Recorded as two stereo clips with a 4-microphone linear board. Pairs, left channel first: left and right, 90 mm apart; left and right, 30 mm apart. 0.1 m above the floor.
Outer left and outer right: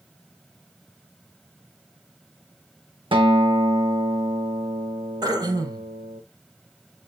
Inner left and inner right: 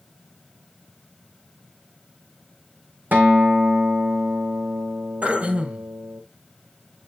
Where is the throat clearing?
50° right (ahead or behind), 1.6 m.